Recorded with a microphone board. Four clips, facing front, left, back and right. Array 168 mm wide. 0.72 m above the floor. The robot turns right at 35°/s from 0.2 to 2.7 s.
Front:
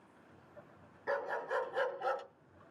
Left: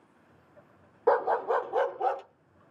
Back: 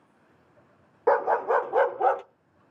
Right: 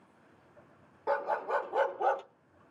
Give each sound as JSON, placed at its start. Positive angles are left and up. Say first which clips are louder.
{"t": 1.1, "sound": "a dog barking", "louder": "left 6 dB, back 15 dB", "azimuth_deg": 150, "distance_m": 0.5}